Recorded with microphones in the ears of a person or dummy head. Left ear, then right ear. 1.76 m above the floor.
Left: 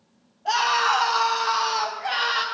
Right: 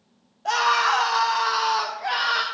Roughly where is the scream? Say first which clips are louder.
Right 1 dB; right.